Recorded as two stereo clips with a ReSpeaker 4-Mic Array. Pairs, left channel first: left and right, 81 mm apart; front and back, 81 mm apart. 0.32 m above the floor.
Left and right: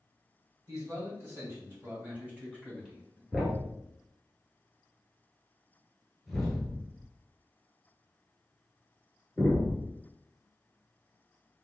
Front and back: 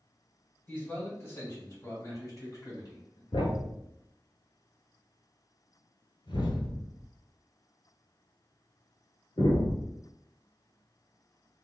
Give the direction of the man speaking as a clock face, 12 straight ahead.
2 o'clock.